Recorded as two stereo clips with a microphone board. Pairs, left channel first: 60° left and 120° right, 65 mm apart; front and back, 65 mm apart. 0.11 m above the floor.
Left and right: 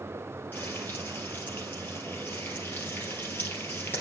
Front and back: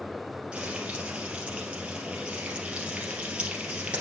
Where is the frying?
105° left, 2.5 m.